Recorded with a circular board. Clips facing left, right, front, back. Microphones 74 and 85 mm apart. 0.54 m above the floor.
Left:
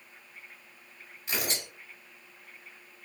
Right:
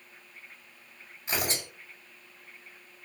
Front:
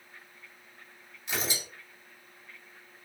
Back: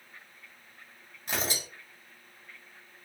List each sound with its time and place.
1.3 s tearing paper: 140° right, 2.5 m